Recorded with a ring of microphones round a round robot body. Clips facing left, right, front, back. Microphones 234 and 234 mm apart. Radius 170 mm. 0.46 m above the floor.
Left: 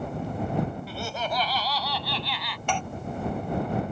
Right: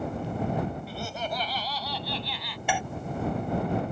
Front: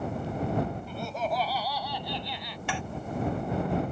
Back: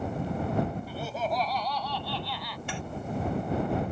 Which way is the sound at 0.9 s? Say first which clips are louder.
Left 2 dB, even; 95° left.